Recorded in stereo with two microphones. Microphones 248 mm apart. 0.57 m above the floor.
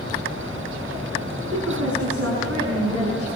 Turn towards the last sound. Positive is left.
turn(degrees=-75)  # may be behind; listen again after turning